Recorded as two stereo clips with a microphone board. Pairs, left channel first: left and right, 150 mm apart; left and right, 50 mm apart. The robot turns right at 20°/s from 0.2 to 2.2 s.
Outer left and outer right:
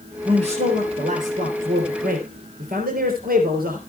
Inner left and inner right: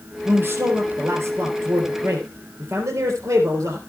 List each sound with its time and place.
0.2 s a man speaking: 135° right, 3.5 m; by 3.8 s 95° right, 3.5 m